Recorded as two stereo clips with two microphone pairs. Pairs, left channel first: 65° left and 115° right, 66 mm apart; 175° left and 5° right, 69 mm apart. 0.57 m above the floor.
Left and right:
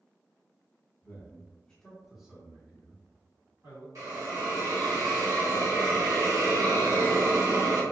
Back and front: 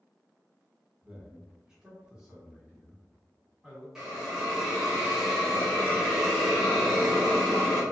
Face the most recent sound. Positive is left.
turn(degrees=-85)